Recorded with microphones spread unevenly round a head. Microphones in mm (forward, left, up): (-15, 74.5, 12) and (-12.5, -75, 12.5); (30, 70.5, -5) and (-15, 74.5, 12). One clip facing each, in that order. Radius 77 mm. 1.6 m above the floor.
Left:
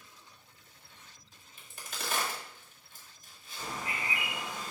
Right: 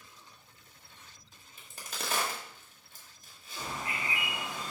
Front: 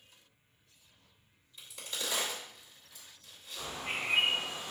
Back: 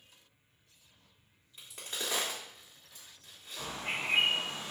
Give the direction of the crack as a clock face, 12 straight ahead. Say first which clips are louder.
Right 1 dB, even; 5 o'clock.